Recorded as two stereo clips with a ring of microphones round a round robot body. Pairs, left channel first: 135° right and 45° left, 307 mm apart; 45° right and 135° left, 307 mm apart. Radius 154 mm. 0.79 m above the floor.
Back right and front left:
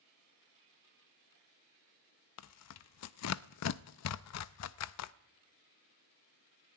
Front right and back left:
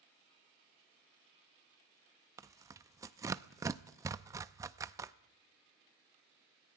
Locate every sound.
2.4 s tearing paper: 150° right, 0.6 m